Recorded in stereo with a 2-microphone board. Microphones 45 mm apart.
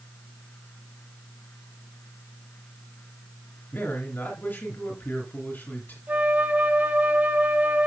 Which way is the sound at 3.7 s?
50° left (ahead or behind).